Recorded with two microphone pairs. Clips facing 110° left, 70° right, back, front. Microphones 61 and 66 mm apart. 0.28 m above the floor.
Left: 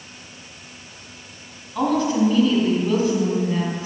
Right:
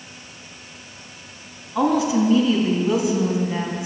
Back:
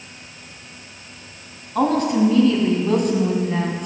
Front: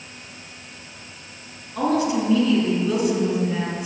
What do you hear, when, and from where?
1.8 s a woman speaking: 145° right, 1.9 m